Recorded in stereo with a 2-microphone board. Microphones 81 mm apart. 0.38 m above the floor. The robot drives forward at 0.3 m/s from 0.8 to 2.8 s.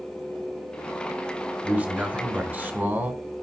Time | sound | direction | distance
1.6 | a man speaking | 25° right (ahead or behind) | 1.1 m